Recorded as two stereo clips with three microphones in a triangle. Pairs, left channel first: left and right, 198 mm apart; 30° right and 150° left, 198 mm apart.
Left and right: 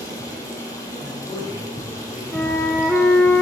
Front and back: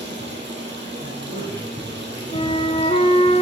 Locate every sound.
0.0 s running water: 165° left, 2 m
1.0 s a man speaking: straight behind, 4 m
2.3 s a flute: 10° left, 0.8 m